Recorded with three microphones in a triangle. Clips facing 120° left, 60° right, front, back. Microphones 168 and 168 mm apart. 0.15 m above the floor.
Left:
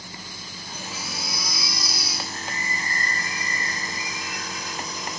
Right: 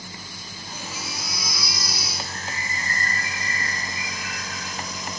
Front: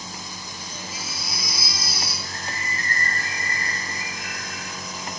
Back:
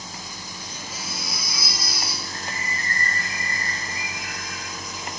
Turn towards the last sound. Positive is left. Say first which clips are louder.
# left 1 dB, even
turn(degrees=-45)